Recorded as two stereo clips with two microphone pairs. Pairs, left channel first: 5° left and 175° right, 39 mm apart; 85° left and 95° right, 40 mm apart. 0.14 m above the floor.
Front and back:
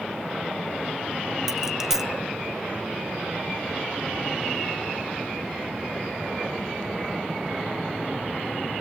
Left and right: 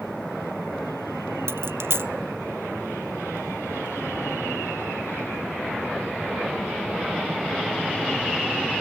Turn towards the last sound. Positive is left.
turn(degrees=-95)